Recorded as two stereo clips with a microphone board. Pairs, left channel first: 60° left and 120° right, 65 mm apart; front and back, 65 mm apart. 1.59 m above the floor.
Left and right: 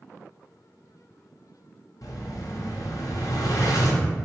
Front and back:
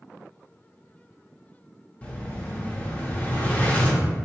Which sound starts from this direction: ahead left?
An explosion, at 2.0 s.